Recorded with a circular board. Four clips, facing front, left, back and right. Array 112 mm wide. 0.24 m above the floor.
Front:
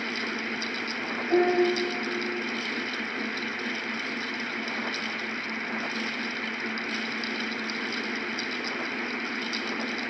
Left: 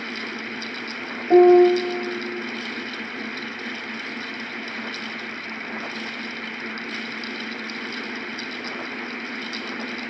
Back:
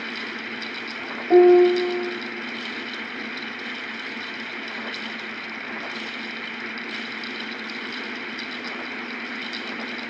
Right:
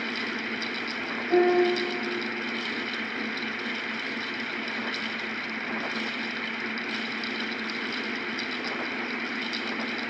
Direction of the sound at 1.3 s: 125° left.